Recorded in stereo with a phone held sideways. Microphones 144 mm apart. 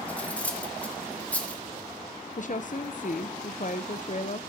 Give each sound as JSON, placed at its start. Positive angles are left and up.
{"t": 0.1, "sound": "cutlery clinking", "side_deg": 10, "distance_m": 1.7}
{"t": 2.4, "sound": "a woman speaking", "side_deg": 55, "distance_m": 0.7}